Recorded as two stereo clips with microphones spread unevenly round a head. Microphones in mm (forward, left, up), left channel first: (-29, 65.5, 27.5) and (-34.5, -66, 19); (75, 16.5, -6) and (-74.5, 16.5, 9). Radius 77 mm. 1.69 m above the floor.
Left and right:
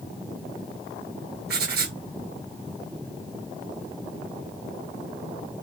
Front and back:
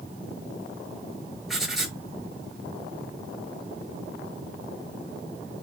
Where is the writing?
90° right, 7.5 m.